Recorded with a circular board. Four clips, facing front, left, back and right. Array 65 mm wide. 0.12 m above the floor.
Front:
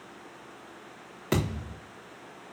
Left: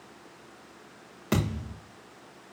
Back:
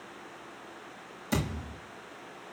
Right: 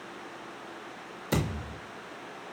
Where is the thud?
40° left, 4.5 m.